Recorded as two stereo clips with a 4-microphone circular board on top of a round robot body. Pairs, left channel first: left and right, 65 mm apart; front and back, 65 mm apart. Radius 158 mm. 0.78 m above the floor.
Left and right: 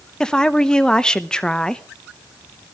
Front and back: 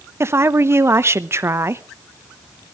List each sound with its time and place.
0.2 s a woman speaking: 160° left, 1.1 m